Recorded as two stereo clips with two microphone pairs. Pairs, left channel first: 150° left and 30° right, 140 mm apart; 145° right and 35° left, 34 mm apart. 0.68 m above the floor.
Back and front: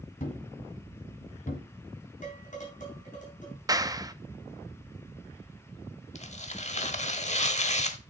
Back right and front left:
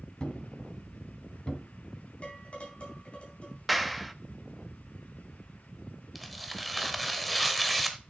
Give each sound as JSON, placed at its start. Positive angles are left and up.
{"t": 0.2, "sound": "a thud", "azimuth_deg": 155, "distance_m": 1.6}
{"t": 2.2, "sound": "dishes clattering", "azimuth_deg": 165, "distance_m": 4.0}
{"t": 3.7, "sound": "a clap", "azimuth_deg": -55, "distance_m": 0.5}
{"t": 6.2, "sound": "tearing paper", "azimuth_deg": 125, "distance_m": 1.0}